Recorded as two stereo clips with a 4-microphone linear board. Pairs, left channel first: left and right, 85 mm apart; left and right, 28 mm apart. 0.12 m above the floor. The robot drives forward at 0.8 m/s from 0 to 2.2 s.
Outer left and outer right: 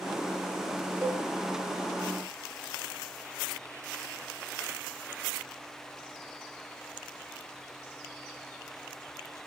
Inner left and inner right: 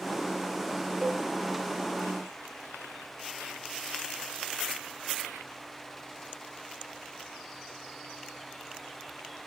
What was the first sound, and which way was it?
A cowbell, 35° right (ahead or behind).